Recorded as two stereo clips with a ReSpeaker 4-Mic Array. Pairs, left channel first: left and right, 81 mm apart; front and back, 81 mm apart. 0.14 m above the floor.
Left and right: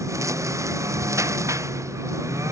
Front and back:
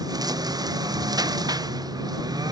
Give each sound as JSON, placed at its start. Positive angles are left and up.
{"t": 0.0, "sound": "a lawn mower", "azimuth_deg": -140}